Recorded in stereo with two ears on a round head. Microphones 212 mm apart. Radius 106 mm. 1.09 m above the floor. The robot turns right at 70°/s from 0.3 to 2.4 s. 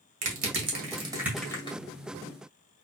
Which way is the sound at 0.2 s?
65° right (ahead or behind).